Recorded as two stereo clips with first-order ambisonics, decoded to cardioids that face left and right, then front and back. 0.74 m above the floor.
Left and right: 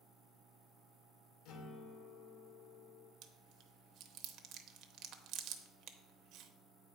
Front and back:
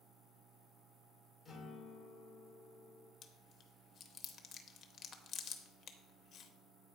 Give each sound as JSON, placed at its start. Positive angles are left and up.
{"t": 1.4, "sound": "a guitar", "azimuth_deg": 70, "distance_m": 1.4}
{"t": 3.2, "sound": "chewing", "azimuth_deg": -55, "distance_m": 0.7}